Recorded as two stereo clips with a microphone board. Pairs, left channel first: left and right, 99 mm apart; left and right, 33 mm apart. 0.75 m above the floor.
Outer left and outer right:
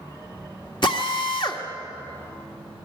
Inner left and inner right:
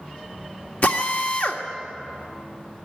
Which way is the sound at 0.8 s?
55° left (ahead or behind).